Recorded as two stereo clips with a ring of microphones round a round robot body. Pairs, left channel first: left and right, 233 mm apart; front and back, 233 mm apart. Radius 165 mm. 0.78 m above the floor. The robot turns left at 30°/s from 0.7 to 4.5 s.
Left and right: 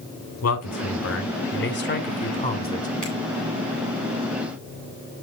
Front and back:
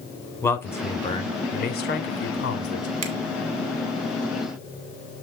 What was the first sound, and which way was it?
A man speaking, 80° left.